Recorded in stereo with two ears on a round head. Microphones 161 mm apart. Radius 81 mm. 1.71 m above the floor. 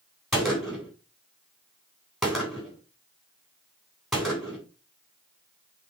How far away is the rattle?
I don't hear a rattle.